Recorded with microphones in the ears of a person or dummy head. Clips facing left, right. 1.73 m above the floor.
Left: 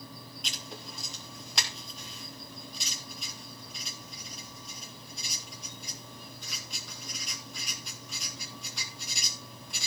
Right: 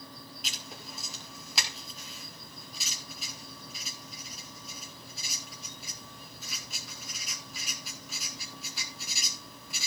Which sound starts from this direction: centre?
Writing, at 0.4 s.